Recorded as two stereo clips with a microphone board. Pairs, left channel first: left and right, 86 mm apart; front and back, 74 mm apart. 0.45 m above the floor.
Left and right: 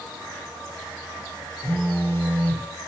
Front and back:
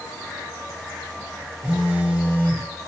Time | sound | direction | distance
1.6 | a phone buzzing | 135° left | 1.3 m